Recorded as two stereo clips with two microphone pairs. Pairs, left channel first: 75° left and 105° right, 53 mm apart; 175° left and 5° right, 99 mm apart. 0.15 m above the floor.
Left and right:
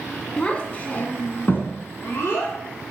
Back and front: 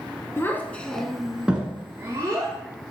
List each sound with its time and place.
0.4 s a child speaking: 135° left, 1.0 m; by 2.5 s 50° left, 1.6 m